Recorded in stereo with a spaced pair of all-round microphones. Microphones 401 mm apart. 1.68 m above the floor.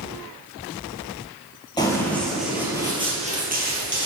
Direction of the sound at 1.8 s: 10° left (ahead or behind).